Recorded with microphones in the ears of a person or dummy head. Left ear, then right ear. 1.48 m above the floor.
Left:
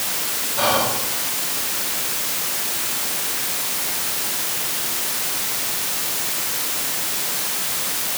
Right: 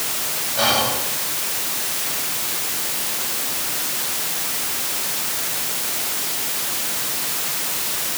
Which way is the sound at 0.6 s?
10° right (ahead or behind).